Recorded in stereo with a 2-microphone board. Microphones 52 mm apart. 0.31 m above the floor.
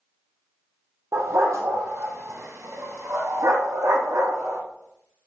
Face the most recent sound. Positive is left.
turn(degrees=-80)